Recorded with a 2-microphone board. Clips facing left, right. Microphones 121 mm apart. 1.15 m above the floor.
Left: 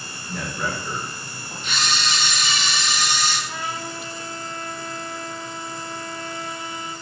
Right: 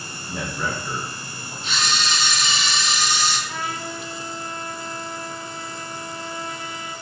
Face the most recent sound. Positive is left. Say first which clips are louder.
# right 1 dB
turn(degrees=30)  # may be behind; listen again after turning